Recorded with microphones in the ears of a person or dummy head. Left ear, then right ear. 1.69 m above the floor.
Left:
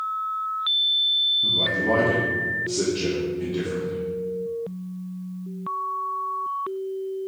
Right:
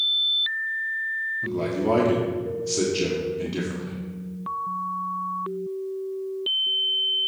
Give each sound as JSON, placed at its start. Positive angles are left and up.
{"t": 1.4, "sound": "a man speaking", "side_deg": -65, "distance_m": 1.3}